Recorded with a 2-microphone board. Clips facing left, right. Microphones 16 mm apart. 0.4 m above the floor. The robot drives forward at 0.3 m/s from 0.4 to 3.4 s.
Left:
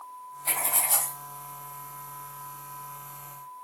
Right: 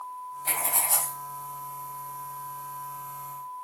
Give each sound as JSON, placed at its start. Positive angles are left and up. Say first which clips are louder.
{"t": 0.5, "sound": "writing", "louder": "even", "side_deg": 5, "distance_m": 0.6}